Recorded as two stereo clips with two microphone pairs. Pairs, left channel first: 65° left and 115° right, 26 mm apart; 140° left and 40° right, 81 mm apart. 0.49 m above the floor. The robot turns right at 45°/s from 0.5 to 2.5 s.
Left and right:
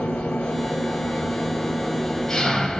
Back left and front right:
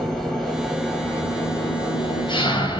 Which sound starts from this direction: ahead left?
An engine running, at 0.0 s.